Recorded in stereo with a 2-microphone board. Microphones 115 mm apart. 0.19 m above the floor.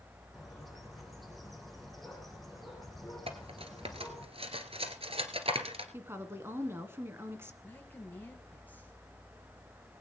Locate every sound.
0.3 s a bird: centre (ahead or behind), 4.5 m
3.3 s cutlery clinking: 55° right (ahead or behind), 1.8 m
5.9 s a woman speaking: 20° right (ahead or behind), 1.8 m
7.6 s a woman speaking: 15° left (ahead or behind), 4.5 m